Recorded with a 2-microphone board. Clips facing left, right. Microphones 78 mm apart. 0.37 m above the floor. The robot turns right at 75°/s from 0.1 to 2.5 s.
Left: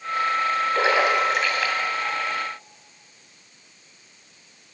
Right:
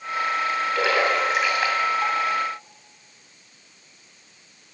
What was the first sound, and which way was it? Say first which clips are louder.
A splash: left 1 dB; 35° left (ahead or behind).